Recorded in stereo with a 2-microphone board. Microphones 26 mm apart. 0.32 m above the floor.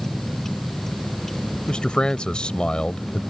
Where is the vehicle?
10° left (ahead or behind); by 3.3 s 15° left (ahead or behind).